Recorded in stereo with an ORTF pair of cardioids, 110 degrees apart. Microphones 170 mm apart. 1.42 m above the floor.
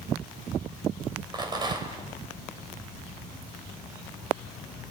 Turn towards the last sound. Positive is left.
turn(degrees=-25)